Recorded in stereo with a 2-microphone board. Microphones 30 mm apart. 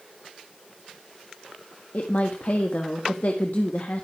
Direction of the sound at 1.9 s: 60° left (ahead or behind).